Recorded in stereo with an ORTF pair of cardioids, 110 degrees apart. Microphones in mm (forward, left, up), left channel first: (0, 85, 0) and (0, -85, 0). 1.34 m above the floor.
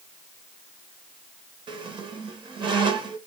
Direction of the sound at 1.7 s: 30° right.